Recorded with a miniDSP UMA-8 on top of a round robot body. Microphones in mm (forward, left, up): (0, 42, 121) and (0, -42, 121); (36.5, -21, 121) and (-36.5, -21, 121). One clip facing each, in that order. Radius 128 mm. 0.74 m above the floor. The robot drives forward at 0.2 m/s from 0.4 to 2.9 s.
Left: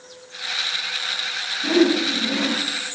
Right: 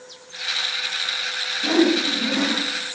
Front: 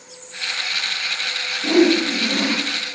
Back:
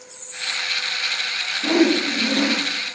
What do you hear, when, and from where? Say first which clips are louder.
1.6 s a whoosh: left 1 dB, front 2 dB; 155° right, 1.3 m; by 2.6 s 160° right, 1.5 m